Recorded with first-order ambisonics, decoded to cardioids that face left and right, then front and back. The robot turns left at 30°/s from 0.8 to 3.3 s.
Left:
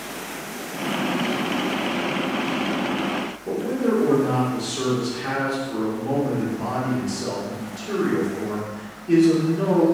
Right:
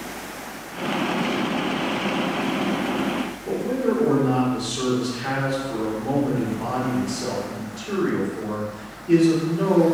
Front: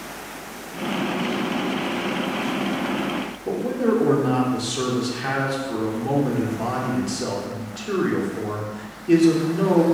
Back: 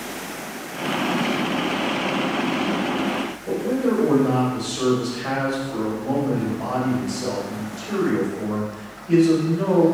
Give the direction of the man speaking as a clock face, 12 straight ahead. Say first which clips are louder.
Even, front 1 dB; 12 o'clock.